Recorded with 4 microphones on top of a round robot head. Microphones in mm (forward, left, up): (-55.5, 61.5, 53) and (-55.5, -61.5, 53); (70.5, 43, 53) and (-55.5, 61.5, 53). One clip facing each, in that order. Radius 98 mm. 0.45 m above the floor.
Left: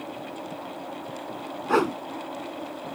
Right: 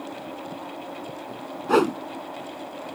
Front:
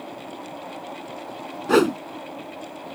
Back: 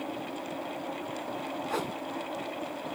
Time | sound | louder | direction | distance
1.7 | a whoosh | right 3 dB, front 18 dB | 15° right | ?